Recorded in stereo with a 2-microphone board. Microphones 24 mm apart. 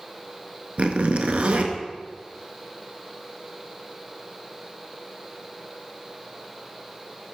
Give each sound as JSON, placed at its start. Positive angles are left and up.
{"t": 0.8, "sound": "a zipper", "side_deg": -75, "distance_m": 0.6}